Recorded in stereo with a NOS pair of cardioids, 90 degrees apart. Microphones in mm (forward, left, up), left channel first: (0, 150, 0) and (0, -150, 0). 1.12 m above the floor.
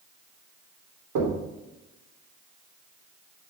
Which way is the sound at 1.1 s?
65° right.